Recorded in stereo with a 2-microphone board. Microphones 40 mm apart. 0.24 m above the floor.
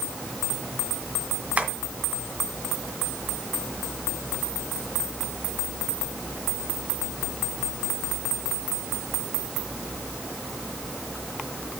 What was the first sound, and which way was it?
Tapping, 35° right (ahead or behind).